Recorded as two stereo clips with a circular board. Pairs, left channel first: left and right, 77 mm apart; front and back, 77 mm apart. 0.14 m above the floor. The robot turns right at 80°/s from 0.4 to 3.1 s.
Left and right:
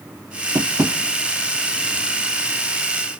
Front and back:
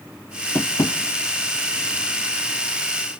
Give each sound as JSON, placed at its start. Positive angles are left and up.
{"t": 0.6, "sound": "tapping", "azimuth_deg": -60, "distance_m": 1.0}